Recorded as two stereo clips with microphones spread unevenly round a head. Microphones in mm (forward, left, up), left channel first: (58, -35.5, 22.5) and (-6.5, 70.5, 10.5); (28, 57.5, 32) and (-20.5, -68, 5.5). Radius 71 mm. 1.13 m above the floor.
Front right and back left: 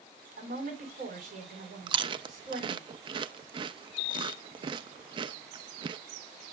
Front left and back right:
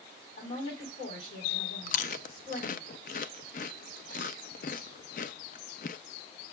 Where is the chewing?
70° left, 0.5 m.